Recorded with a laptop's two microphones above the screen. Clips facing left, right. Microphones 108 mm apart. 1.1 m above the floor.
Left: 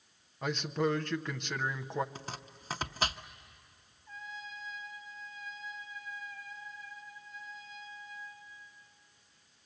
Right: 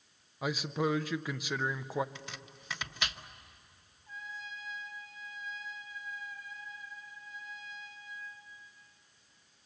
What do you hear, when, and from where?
0.4 s a man speaking: 5° right (ahead or behind), 0.5 m
2.1 s chopping: 35° left (ahead or behind), 0.7 m
4.1 s a trumpet: 50° right (ahead or behind), 3 m